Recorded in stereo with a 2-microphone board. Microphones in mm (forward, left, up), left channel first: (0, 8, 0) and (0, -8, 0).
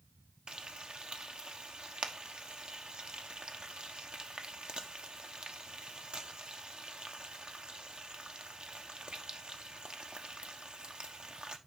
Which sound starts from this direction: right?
Frying, at 0.5 s.